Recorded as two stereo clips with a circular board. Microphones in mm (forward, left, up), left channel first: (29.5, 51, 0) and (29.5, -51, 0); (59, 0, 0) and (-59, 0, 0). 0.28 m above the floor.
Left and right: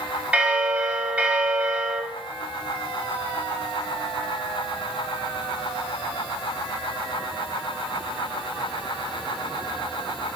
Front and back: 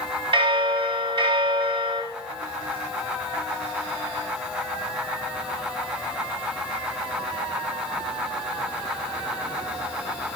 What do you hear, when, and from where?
0.3 s a bell: 165° right, 0.5 m